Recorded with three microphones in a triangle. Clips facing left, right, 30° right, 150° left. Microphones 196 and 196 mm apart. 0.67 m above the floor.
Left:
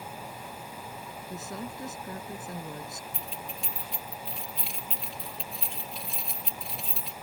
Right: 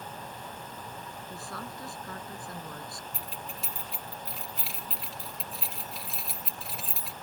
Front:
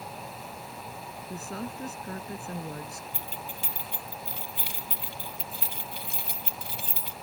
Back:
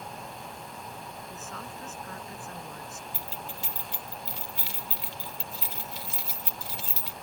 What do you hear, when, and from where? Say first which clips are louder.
1.3 s a woman speaking: left 5 dB, front 10 dB; 20° left
3.1 s keys jangling: left 1 dB, even; straight ahead